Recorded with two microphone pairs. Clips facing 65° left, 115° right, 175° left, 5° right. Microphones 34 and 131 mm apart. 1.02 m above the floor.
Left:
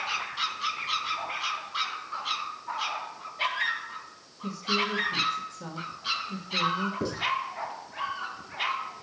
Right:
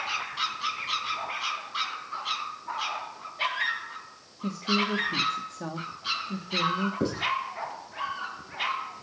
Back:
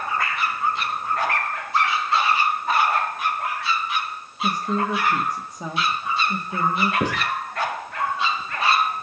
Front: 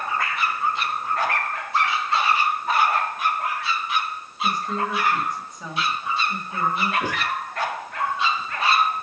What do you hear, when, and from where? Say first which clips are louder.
4.4 s a woman speaking: right 1 dB, back 2 dB; 135° right, 1.8 m
7.0 s writing: right 2 dB, back 3 dB; 170° right, 5.5 m